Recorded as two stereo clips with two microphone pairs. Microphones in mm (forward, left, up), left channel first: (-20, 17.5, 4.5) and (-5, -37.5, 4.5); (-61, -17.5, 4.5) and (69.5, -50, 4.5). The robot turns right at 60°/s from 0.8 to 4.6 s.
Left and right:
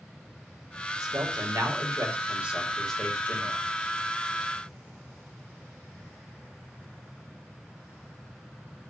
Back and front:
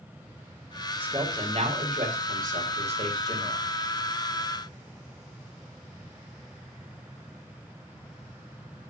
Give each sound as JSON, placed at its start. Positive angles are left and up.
{"t": 1.0, "sound": "a man speaking", "azimuth_deg": -90, "distance_m": 5.0}